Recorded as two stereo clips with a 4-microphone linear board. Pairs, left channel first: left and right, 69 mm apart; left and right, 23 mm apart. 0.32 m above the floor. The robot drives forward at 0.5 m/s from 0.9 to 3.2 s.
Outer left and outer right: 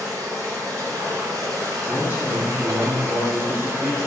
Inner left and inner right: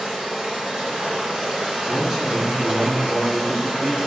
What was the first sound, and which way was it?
Running water, 65° right (ahead or behind).